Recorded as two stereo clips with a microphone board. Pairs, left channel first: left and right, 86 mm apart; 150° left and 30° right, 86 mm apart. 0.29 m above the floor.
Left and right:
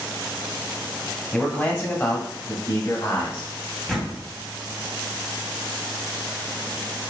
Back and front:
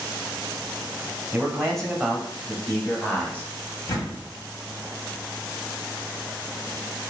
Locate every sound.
1.3 s a man speaking: 40° left, 1.1 m; by 3.5 s 90° left, 1.8 m
3.9 s a door slam: 175° left, 1.5 m